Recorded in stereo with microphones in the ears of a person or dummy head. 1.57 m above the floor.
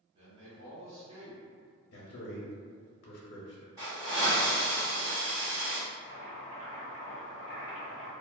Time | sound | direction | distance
0.1 | a man speaking | 35° right (ahead or behind) | 1.2 m
1.9 | a man speaking | 70° left (ahead or behind) | 0.6 m
3.8 | a hiss | 20° right (ahead or behind) | 1.2 m
5.9 | boiling | 35° right (ahead or behind) | 1.6 m